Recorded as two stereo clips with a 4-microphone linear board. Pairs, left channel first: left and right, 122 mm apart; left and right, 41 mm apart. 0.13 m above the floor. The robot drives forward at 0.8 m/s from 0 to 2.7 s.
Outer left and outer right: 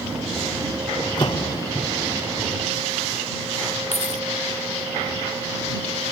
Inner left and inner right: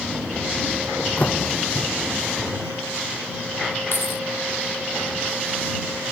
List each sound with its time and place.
1.0 s a door slam: 35° left (ahead or behind); by 1.7 s 30° left (ahead or behind)
3.9 s keys jangling: 60° left (ahead or behind)